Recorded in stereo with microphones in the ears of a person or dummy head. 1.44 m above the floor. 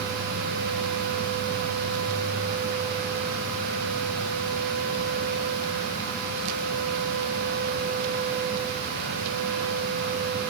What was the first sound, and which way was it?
Only background noise.